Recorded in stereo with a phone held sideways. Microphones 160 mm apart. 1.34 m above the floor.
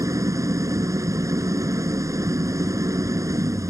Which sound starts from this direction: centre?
An engine running, at 0.0 s.